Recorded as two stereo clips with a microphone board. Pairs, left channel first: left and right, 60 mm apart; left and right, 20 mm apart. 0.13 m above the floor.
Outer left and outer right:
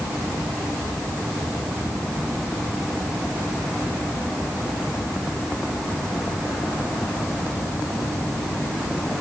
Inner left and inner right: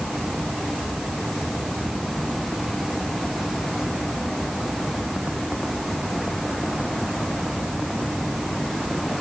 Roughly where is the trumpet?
No trumpet in this recording.